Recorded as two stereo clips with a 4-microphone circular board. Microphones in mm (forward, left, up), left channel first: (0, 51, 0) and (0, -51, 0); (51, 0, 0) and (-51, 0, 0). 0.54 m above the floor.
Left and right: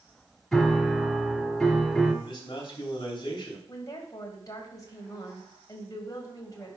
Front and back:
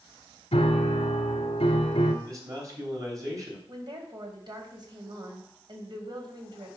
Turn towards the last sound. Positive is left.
turn(degrees=140)